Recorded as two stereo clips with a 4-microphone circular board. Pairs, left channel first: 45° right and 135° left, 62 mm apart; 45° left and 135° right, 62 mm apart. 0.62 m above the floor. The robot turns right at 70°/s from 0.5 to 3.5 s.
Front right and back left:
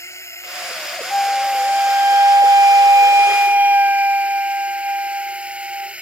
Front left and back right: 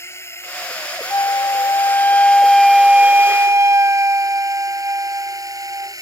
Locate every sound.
0.0 s a drone: straight ahead; by 6.0 s 150° right
1.1 s a flute: 20° left; by 6.0 s 170° right